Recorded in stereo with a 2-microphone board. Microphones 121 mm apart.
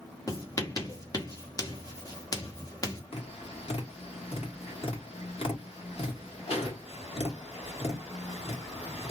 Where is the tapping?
55° left (ahead or behind), 1.5 m.